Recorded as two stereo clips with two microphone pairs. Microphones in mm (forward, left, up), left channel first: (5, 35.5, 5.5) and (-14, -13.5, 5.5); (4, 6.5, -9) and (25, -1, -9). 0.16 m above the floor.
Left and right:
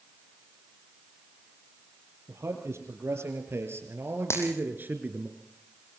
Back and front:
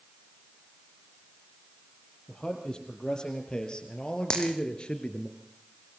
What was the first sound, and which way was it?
A man speaking, 140° right.